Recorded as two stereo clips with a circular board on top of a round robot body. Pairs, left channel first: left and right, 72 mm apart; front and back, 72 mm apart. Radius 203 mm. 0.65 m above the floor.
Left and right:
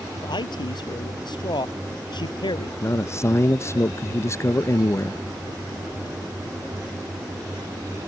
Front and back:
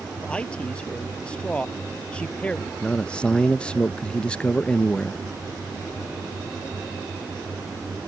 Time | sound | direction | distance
0.2 | a man speaking | 75° left | ?
2.8 | a man speaking | 70° left | ?